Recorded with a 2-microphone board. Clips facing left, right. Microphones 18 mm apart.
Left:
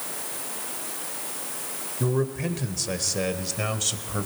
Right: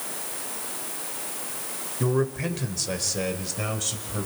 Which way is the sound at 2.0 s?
20° right (ahead or behind).